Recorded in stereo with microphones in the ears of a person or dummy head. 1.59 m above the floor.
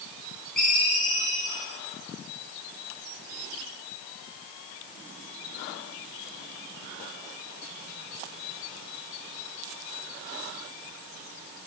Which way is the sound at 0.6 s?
Centre (ahead or behind).